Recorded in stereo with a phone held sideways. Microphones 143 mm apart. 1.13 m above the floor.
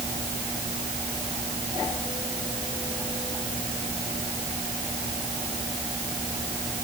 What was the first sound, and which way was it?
Only background noise.